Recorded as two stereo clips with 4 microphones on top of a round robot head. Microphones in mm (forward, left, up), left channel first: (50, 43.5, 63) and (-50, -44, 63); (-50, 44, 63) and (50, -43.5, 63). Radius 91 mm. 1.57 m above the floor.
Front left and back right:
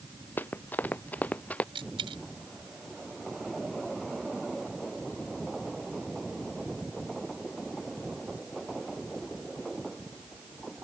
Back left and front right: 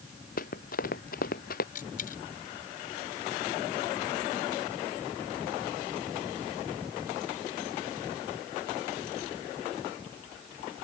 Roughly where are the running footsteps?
Behind left.